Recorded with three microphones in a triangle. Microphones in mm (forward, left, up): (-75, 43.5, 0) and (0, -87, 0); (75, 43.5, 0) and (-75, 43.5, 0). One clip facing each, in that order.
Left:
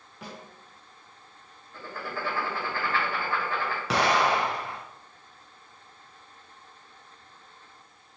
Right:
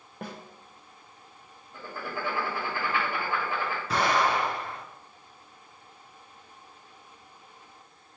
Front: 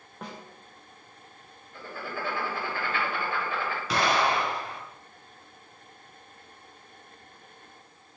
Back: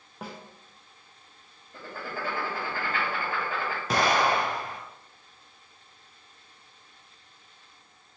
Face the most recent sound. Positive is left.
turn(degrees=135)